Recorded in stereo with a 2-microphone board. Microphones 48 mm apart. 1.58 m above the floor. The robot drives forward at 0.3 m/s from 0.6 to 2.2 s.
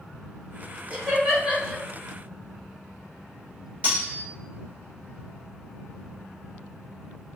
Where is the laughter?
30° right (ahead or behind), 1.4 m; by 1.8 s 25° right (ahead or behind), 1.6 m.